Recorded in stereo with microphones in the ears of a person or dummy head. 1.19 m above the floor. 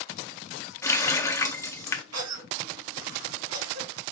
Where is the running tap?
20° left (ahead or behind), 0.5 m.